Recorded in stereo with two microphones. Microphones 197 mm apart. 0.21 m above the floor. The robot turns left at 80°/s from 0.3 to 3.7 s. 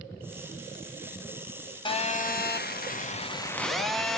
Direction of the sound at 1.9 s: 150° left.